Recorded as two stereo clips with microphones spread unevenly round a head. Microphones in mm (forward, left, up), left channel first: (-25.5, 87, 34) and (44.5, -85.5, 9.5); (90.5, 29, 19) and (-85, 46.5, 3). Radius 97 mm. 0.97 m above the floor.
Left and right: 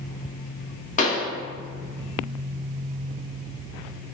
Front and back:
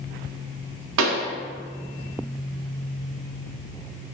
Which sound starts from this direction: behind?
A pop, at 1.0 s.